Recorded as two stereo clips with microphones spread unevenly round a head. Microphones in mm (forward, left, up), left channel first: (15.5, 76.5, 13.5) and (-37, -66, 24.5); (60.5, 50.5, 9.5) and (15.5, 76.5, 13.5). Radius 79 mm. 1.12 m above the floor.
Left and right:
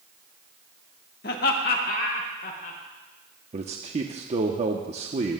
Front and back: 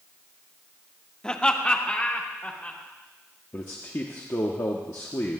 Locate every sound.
1.2 s laughter: 45° left, 1.5 m; by 2.8 s 30° left, 3 m
3.5 s a man speaking: 65° right, 0.7 m